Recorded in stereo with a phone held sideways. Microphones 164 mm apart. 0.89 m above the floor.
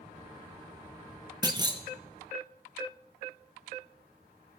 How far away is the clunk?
About 0.9 m.